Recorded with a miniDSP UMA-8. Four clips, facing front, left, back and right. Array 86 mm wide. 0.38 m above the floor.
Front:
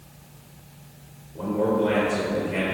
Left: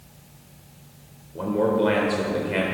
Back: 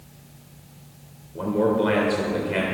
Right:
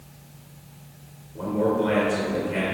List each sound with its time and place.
1.4 s a man speaking: 130° left, 0.9 m